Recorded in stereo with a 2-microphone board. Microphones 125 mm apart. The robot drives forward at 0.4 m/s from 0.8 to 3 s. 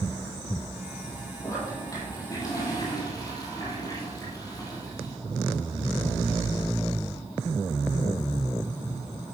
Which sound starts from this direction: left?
A toilet flushing, at 1.4 s.